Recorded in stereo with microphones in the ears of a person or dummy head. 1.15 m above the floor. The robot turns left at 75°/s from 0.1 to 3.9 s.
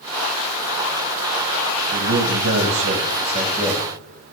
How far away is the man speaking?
About 1.4 m.